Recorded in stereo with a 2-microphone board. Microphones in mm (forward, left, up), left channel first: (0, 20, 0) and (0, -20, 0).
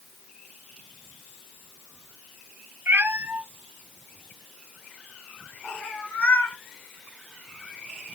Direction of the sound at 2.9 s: 65° right (ahead or behind).